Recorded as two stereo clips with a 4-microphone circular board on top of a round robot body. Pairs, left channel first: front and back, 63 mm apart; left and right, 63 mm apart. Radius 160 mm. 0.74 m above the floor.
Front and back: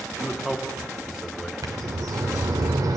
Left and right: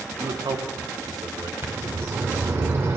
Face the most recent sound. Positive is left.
turn(degrees=-145)